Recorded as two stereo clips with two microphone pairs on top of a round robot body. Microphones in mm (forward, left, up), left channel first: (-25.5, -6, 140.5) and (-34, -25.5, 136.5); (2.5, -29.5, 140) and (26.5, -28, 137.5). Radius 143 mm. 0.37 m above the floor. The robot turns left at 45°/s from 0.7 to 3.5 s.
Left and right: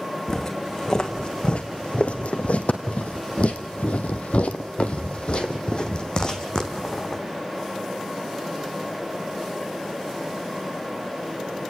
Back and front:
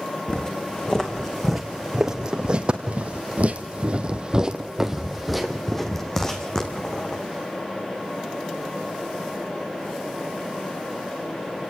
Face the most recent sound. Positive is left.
turn(degrees=125)